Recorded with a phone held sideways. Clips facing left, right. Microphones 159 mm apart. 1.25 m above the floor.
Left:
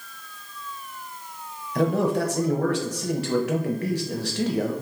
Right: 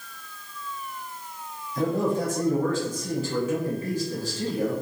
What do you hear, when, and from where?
1.8 s a man speaking: 80° left, 0.5 m